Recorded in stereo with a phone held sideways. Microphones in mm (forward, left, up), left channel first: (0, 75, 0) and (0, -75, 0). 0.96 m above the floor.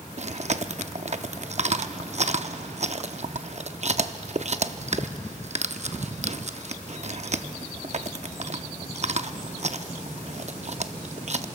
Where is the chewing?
50° right (ahead or behind), 0.6 m.